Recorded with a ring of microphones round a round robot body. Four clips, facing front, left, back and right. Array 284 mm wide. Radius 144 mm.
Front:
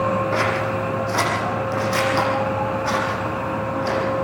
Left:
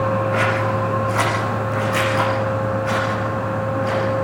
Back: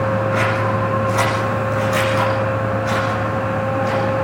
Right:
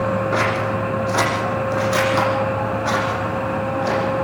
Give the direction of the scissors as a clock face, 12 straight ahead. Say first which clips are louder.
Left 1 dB, back 3 dB; 2 o'clock.